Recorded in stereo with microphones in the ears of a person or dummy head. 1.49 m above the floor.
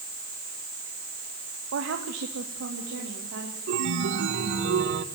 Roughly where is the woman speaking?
Right.